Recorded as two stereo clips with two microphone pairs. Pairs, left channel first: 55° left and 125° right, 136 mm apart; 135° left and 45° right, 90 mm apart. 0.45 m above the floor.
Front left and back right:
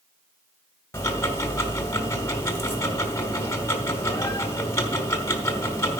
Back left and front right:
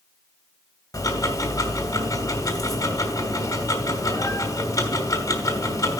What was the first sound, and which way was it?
Ticking, 115° left.